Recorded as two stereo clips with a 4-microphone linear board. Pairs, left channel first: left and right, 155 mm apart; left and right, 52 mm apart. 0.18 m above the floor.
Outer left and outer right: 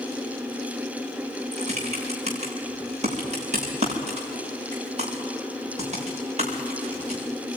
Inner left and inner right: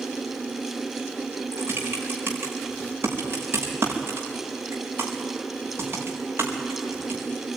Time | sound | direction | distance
1.5 | typing on a keyboard | 45° right (ahead or behind) | 6 m